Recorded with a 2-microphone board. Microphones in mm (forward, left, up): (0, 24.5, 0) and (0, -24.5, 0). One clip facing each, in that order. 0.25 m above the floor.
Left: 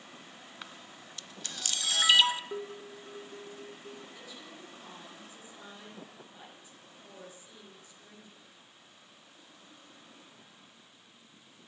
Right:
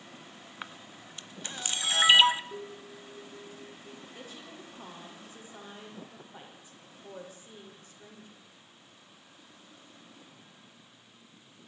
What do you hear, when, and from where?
0.6 s a camera shutter: 25° right (ahead or behind), 0.8 m
2.5 s dishes clattering: 55° left (ahead or behind), 2.5 m
4.2 s a woman speaking: 40° right (ahead or behind), 9 m